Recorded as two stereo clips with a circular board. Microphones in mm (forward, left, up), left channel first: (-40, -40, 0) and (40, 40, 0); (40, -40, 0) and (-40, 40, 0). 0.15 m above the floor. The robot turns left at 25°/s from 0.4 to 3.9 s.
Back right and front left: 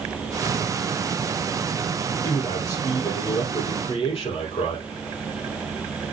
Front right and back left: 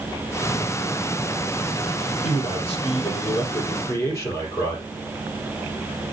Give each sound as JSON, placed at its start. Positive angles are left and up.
{"t": 2.2, "sound": "a man speaking", "azimuth_deg": -65, "distance_m": 5.0}